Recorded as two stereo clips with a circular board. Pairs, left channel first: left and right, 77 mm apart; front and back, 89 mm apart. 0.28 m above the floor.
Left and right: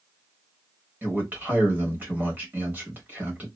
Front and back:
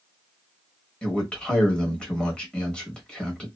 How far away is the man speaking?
About 1.1 m.